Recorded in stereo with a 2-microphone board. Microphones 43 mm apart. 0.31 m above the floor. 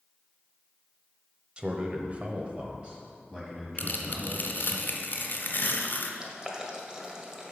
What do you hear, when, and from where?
1.6 s a man speaking: 25° right (ahead or behind), 1.1 m; by 4.8 s 10° right (ahead or behind), 3 m
3.8 s tearing paper: 50° left (ahead or behind), 1.2 m
6.2 s boiling: 15° right (ahead or behind), 1.3 m